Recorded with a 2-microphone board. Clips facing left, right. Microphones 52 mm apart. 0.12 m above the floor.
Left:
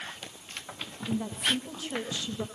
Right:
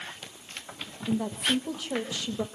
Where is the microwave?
No microwave in this recording.